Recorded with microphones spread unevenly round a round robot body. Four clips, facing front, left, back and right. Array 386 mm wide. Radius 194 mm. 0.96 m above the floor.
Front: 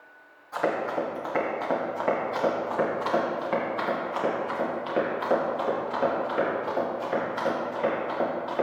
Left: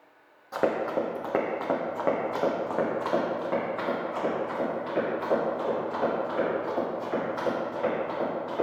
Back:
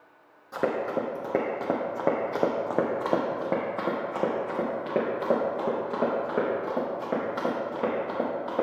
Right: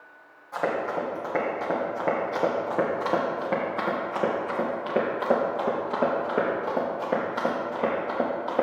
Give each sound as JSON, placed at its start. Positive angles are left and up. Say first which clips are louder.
{"t": 0.5, "sound": "running footsteps", "louder": "left 1 dB, even", "azimuth_deg": 145, "distance_m": 1.7}